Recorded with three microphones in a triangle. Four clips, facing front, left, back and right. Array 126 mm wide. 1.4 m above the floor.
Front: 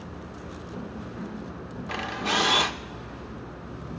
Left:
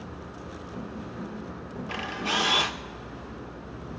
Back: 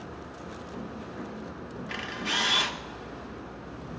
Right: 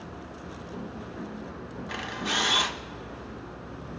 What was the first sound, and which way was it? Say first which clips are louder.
A camera shutter: left 2 dB, front 6 dB; 20° left.